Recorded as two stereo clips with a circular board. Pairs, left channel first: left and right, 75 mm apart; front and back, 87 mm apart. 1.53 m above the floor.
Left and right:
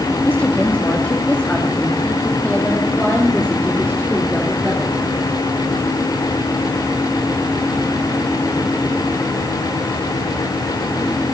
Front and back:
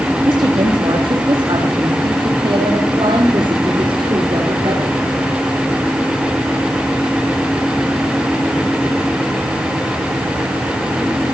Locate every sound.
0.2 s a woman speaking: 150° left, 2.5 m; by 5.0 s 170° left, 4.5 m